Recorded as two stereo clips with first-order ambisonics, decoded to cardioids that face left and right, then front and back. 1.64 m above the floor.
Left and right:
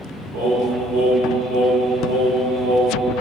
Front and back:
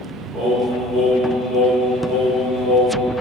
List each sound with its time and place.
0.3 s singing: 95° right, 1.7 m